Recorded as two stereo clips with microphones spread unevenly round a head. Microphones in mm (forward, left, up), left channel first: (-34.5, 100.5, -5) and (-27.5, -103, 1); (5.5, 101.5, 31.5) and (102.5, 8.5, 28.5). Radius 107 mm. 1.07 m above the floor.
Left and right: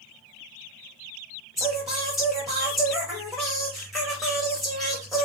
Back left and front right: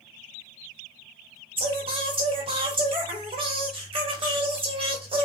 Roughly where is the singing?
Ahead.